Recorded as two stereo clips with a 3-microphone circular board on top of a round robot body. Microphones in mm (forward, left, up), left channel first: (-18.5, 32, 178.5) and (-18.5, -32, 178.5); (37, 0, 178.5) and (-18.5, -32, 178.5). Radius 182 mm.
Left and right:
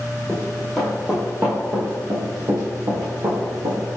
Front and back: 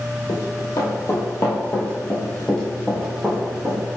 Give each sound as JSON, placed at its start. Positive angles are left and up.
{"t": 0.3, "sound": "running footsteps", "azimuth_deg": 10, "distance_m": 1.7}